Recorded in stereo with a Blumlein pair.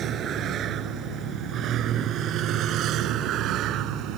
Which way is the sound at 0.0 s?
30° right.